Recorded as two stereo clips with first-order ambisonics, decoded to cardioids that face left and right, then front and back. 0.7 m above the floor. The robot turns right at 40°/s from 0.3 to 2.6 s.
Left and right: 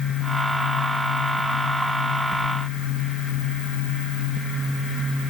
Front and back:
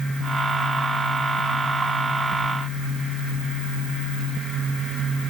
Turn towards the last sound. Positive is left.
No sound to turn to.